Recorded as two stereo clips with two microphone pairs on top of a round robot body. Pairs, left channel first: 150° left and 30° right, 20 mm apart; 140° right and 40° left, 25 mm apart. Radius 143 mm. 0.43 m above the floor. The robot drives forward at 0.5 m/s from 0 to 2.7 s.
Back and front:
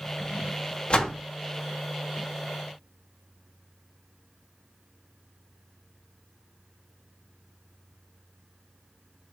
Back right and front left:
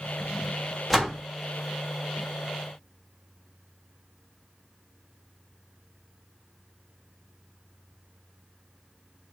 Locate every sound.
0.9 s a door slam: 125° left, 1.1 m; by 1.2 s 135° left, 1.2 m